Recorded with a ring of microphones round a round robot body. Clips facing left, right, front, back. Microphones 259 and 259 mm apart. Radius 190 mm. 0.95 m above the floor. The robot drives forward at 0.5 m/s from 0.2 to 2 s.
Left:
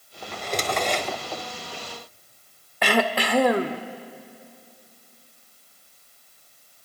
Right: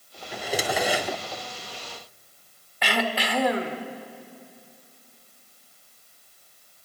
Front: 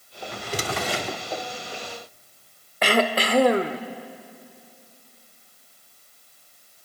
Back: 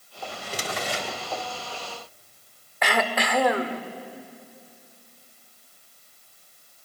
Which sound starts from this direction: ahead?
A drawer, at 0.3 s.